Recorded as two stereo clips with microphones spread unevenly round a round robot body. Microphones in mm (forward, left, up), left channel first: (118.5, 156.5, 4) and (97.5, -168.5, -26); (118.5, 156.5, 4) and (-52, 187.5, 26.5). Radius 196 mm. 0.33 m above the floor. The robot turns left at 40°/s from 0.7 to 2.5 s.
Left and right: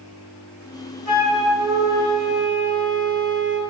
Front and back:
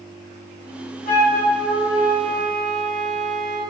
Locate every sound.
1.1 s a flute: 20° left, 0.8 m; by 3.6 s 40° right, 0.8 m